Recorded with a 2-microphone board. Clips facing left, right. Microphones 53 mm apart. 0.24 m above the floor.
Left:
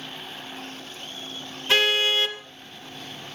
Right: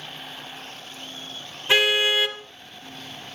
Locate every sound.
1.7 s a car horn: 15° right (ahead or behind), 2.5 m